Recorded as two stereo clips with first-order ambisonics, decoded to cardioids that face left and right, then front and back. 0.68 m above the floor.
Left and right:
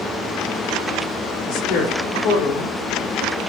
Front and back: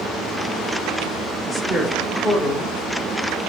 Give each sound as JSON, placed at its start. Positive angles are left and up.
{"t": 1.5, "sound": "a woman speaking", "azimuth_deg": 90, "distance_m": 1.9}